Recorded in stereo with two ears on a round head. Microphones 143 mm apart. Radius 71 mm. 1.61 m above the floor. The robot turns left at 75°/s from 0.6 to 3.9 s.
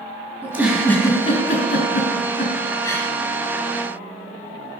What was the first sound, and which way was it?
A giggle, 15° right (ahead or behind).